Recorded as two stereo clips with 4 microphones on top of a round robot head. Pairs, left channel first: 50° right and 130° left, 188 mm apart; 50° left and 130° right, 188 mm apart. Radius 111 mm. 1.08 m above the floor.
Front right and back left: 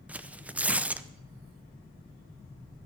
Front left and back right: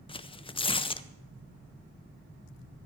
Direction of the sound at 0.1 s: 60° left.